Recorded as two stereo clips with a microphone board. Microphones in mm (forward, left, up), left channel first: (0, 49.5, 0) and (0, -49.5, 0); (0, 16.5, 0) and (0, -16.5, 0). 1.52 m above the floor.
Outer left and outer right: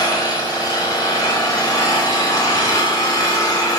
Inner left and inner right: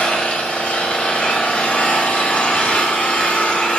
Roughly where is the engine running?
Left.